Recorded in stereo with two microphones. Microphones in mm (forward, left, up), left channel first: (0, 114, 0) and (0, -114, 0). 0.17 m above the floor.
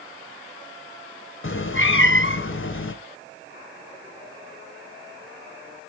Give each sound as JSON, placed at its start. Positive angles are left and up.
{"t": 1.4, "sound": "a cat meowing", "side_deg": 60, "distance_m": 0.9}